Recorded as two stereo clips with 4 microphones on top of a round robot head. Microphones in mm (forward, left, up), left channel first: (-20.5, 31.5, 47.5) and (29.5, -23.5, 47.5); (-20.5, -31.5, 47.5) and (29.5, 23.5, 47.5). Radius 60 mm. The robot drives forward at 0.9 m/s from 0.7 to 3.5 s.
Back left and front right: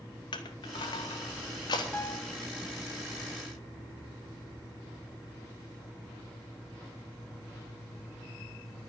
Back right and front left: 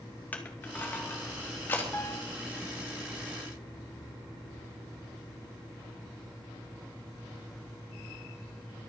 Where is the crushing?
160° left, 2.5 m; by 1.8 s 165° left, 3.5 m.